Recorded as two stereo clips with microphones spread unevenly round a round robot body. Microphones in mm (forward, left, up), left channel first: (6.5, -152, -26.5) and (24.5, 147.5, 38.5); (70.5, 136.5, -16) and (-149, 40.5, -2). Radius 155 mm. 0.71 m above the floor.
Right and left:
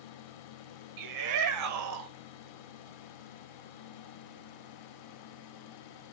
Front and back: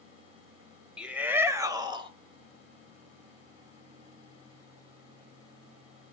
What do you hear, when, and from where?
1.0 s a shout: 115° left, 3 m; by 2.1 s 135° left, 2.5 m